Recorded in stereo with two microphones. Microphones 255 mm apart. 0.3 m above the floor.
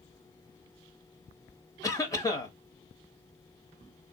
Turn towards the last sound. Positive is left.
turn(degrees=15)  # may be behind; listen again after turning